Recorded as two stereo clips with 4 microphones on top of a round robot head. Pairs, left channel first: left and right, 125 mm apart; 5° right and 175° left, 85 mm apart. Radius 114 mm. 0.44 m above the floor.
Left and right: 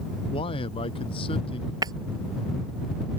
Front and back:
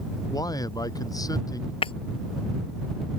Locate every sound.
0.3 s a man speaking: 35° left; by 1.7 s 40° left
1.8 s breaking glass: 25° right